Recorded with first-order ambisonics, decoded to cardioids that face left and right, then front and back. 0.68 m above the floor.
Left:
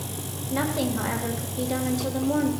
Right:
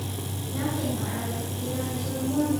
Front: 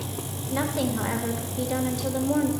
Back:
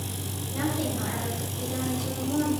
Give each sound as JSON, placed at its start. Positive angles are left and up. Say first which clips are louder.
{"t": 0.5, "sound": "a woman speaking", "louder": "left 4 dB, front 3 dB", "azimuth_deg": 50, "distance_m": 2.0}